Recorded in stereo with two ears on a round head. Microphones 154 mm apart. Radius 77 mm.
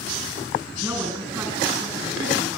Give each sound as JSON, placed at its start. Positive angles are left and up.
{"t": 0.8, "sound": "a woman speaking", "side_deg": -10, "distance_m": 4.5}